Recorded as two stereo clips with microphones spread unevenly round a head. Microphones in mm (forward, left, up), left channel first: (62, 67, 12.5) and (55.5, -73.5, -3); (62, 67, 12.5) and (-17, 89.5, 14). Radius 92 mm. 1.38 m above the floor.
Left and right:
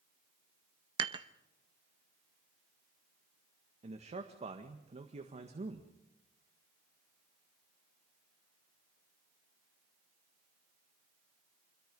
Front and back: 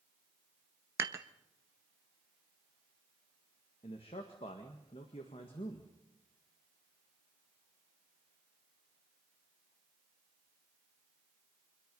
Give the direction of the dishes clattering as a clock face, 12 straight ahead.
5 o'clock.